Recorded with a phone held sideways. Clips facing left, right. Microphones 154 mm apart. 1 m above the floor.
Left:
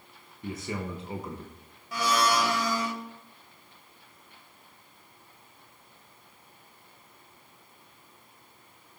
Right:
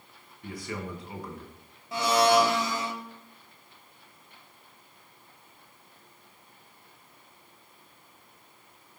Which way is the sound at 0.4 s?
25° left (ahead or behind).